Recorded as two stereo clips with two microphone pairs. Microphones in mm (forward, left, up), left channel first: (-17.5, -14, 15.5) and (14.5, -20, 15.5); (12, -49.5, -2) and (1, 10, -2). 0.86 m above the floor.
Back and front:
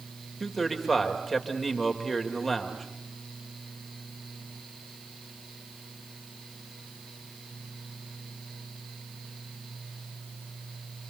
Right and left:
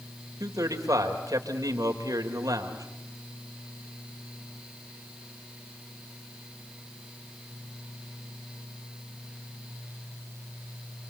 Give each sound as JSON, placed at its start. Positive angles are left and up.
{"t": 0.4, "sound": "a man speaking", "azimuth_deg": 85, "distance_m": 3.5}